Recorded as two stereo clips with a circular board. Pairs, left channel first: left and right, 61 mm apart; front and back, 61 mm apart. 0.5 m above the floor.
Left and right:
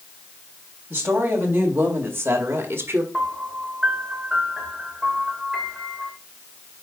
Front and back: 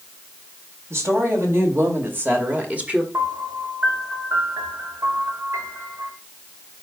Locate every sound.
0.9 s a woman speaking: 145° right, 3 m; by 3.0 s 110° right, 1.5 m
3.1 s a piano: 165° right, 2 m